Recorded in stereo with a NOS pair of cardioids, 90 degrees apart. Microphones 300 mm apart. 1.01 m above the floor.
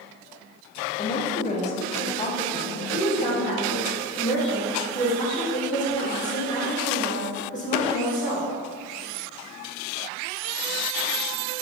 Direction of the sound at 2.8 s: 25° left.